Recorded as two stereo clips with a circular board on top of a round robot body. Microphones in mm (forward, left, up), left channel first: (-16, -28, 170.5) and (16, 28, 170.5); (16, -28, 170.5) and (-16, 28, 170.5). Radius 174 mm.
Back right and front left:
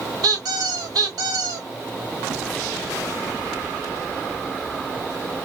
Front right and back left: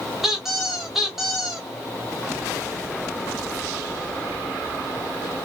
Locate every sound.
0.2 s a squeak: 35° left, 0.6 m